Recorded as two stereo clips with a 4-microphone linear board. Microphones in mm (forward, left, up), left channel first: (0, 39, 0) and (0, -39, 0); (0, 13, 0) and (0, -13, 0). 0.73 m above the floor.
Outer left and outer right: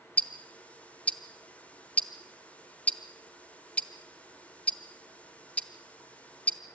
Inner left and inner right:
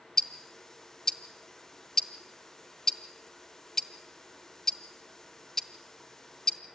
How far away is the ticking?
About 0.9 m.